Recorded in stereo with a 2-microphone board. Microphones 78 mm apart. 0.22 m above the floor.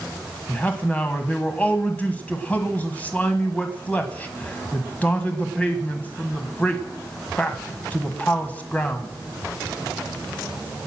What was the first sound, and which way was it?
A man speaking, 20° left (ahead or behind).